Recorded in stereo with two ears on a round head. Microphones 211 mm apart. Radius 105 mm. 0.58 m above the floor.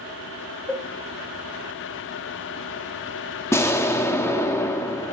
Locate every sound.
0.7 s a cowbell: 5° left (ahead or behind), 0.8 m
3.5 s an explosion: 10° left (ahead or behind), 0.7 m